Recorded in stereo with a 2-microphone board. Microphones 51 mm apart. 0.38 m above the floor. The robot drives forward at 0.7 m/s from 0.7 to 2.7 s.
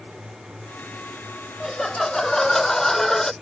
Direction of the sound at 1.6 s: 5° left (ahead or behind).